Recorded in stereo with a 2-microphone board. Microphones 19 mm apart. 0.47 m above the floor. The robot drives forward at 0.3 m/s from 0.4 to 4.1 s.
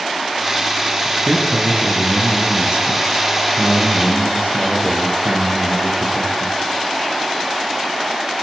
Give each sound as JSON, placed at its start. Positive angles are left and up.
{"t": 1.1, "sound": "a man speaking", "side_deg": -75, "distance_m": 7.5}